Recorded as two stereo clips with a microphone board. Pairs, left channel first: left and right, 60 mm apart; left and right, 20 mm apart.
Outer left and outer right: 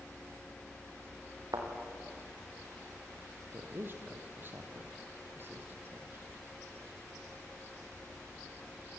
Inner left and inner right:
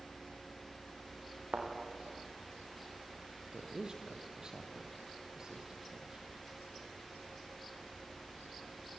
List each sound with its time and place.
1.5 s a thud: 70° right (ahead or behind), 6 m
3.5 s a woman speaking: 40° right (ahead or behind), 3.5 m